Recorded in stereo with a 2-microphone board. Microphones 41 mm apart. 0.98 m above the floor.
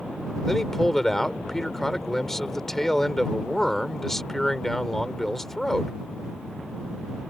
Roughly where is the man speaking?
Centre.